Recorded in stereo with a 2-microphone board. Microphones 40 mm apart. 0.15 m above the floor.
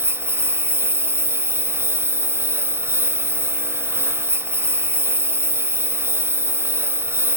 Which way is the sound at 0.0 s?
80° right.